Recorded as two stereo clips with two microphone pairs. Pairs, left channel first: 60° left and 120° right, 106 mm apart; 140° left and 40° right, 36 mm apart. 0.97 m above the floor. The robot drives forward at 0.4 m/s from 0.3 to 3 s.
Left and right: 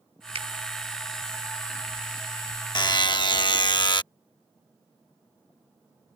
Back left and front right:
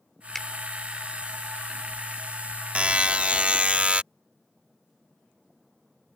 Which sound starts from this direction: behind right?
A finger snap, at 0.3 s.